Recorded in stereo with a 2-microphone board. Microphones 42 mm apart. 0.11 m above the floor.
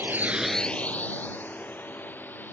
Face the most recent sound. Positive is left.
turn(degrees=50)  # may be behind; listen again after turning